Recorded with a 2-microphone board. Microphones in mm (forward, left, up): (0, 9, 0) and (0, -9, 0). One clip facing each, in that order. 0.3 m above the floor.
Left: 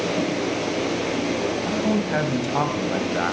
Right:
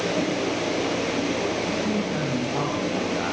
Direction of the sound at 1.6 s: 55° left (ahead or behind).